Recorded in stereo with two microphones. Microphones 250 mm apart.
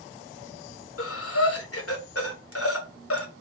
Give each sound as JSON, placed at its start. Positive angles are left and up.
{"t": 1.0, "sound": "breathing", "side_deg": 60, "distance_m": 1.0}